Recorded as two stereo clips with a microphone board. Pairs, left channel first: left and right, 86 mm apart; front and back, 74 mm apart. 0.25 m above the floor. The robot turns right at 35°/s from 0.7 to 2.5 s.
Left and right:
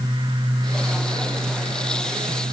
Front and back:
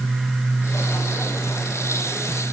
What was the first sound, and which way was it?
Only background noise.